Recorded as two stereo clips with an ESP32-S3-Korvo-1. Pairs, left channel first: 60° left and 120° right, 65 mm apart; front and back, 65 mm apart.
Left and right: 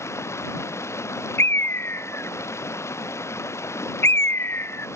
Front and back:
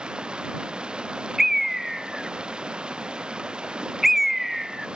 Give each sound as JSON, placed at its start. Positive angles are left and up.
{"t": 0.0, "sound": "running water", "azimuth_deg": 105}
{"t": 1.4, "sound": "a bird", "azimuth_deg": 95}